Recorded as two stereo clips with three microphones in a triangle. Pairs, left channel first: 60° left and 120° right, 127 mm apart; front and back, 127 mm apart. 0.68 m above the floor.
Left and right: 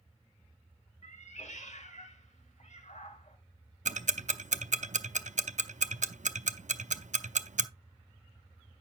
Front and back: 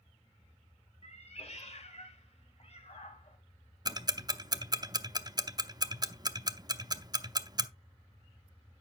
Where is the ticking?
125° right, 0.6 m.